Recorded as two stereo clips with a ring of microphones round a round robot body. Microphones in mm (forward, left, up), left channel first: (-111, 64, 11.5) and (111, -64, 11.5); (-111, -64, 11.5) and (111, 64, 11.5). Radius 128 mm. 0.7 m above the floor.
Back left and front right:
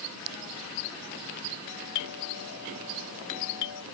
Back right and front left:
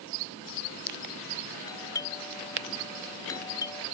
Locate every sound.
1.7 s a doorbell: 135° left